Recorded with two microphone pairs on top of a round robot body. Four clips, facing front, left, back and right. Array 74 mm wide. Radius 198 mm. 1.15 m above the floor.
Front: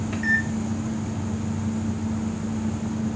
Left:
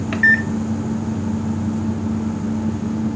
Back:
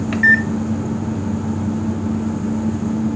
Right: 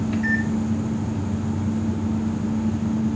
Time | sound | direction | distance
0.1 | a microwave | 125° left | 0.6 m